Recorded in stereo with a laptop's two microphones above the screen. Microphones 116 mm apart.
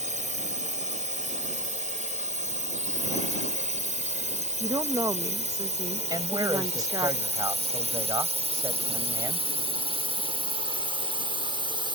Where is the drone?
75° right (ahead or behind); by 11.9 s 40° right (ahead or behind).